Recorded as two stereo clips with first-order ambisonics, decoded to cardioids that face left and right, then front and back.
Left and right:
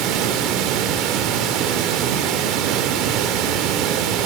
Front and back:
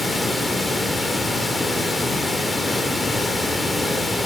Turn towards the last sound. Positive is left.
turn(degrees=-80)